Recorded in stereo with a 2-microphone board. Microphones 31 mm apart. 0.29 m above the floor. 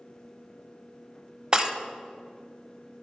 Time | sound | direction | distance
1.5 | breaking glass | 30° right (ahead or behind) | 0.5 m